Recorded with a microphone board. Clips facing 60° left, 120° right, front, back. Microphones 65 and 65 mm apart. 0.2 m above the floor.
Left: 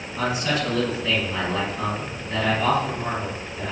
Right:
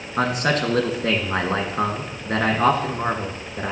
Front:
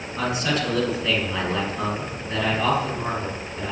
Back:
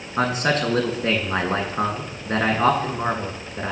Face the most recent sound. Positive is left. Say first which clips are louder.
# right 3 dB, back 4 dB
turn(degrees=-140)